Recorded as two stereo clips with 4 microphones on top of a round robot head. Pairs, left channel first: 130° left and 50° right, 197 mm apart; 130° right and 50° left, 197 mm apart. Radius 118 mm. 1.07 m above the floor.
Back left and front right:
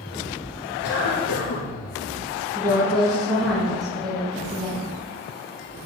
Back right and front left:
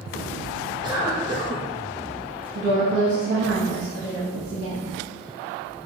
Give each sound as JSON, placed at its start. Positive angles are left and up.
{"t": 0.8, "sound": "a cough", "azimuth_deg": 120, "distance_m": 1.0}
{"t": 2.5, "sound": "a woman speaking", "azimuth_deg": 45, "distance_m": 2.5}